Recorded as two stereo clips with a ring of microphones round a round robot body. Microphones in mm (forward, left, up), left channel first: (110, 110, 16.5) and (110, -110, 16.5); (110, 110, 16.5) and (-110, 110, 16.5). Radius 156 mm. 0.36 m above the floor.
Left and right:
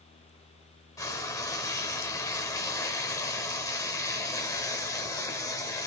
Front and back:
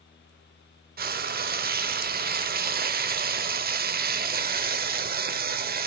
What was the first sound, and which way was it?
Frying, 160° left.